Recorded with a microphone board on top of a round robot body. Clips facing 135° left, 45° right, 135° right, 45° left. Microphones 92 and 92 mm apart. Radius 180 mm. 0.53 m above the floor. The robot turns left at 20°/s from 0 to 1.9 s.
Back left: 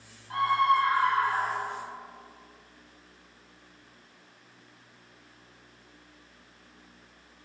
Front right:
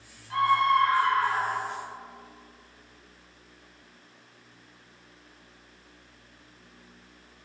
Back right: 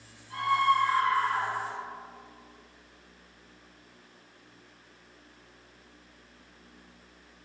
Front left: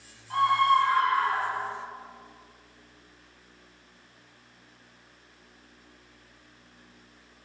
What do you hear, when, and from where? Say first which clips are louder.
0.3 s a scream: front right 1 dB, front left 3 dB; 75° left, 6 m; by 1.8 s 50° left, 6 m